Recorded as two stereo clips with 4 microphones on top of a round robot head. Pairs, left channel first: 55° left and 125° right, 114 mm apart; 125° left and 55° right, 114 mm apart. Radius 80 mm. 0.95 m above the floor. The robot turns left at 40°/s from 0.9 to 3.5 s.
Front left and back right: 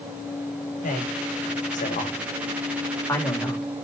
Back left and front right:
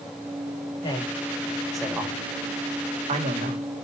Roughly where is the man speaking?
Left.